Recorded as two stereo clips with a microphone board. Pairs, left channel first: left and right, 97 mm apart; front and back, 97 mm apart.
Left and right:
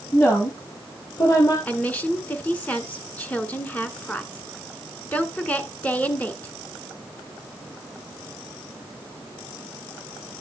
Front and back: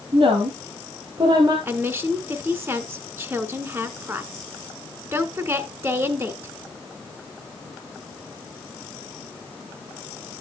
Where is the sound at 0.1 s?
155° left, 3 m; by 1.6 s 135° left, 3 m.